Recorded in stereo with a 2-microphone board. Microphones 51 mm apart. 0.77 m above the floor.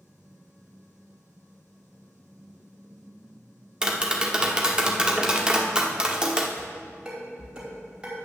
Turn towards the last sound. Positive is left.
turn(degrees=-20)  # may be behind; listen again after turning